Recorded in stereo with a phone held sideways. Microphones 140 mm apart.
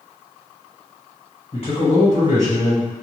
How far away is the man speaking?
About 1.5 m.